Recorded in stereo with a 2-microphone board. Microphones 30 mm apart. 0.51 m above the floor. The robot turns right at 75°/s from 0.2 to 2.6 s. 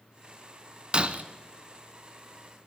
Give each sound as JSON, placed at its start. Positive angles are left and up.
{"t": 0.9, "sound": "breaking glass", "side_deg": -30, "distance_m": 0.6}